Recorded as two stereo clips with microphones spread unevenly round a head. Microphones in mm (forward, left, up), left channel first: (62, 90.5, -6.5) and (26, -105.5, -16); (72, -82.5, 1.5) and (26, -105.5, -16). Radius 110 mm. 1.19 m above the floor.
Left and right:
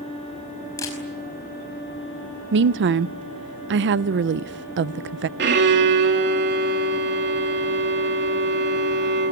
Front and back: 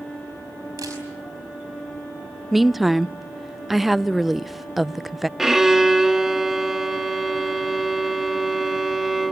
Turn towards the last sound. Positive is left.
turn(degrees=-70)